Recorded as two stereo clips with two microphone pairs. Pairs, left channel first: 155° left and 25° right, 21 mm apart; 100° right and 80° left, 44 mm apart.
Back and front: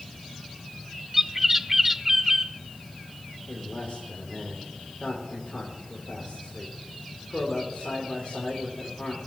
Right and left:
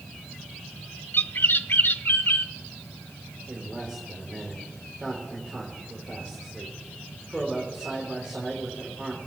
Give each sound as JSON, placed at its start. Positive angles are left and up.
{"t": 1.1, "sound": "a bird", "azimuth_deg": -95, "distance_m": 0.5}
{"t": 3.5, "sound": "a man speaking", "azimuth_deg": 140, "distance_m": 3.0}